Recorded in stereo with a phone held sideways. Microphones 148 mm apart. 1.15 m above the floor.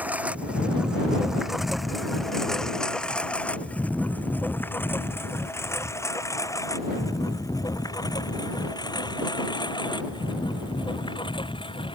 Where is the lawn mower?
10° right (ahead or behind); by 11.9 s 35° left (ahead or behind).